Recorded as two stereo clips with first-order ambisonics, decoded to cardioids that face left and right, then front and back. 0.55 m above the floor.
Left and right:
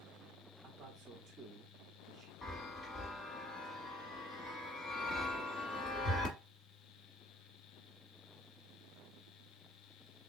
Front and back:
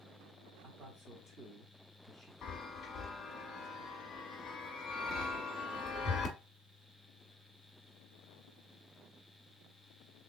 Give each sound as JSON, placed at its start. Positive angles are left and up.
{"t": 0.6, "sound": "a man speaking", "azimuth_deg": -135, "distance_m": 0.8}
{"t": 2.4, "sound": "a chime", "azimuth_deg": 40, "distance_m": 1.0}